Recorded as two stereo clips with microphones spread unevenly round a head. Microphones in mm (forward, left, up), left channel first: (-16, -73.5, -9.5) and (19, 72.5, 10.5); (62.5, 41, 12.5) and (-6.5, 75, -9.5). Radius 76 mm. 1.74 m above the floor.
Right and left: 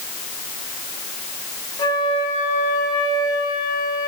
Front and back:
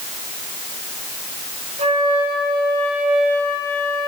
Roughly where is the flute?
Behind.